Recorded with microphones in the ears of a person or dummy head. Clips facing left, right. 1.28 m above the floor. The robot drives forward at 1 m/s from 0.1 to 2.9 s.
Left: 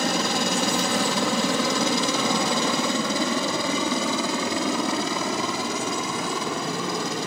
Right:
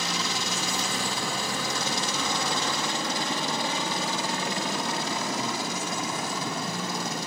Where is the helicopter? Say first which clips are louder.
Left 8 dB; 45° left (ahead or behind); by 7.3 s 55° left (ahead or behind).